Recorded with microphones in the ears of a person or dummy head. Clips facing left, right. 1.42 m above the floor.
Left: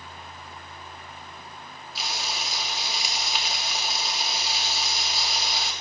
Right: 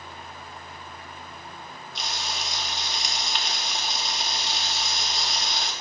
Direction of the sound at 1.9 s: 5° left (ahead or behind).